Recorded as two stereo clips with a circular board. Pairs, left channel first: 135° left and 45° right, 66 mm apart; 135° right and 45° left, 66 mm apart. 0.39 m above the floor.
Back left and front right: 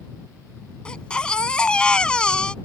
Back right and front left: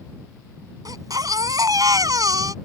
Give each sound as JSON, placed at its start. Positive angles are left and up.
{"t": 0.8, "sound": "a baby crying", "azimuth_deg": 60}